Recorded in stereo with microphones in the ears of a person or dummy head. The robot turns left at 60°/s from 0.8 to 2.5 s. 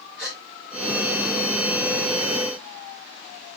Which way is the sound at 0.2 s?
5° right (ahead or behind).